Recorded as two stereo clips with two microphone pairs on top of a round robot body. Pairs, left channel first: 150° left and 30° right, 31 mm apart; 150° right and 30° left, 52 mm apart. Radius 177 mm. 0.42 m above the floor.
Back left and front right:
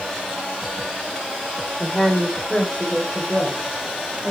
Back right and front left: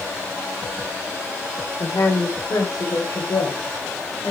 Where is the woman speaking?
140° right, 2 m; by 4.3 s 120° right, 3 m.